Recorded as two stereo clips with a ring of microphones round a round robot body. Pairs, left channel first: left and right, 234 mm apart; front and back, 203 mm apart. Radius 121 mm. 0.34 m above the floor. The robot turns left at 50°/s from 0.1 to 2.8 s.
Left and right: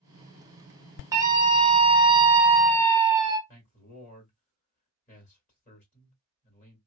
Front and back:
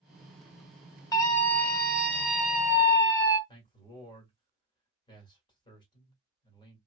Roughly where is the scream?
Ahead right.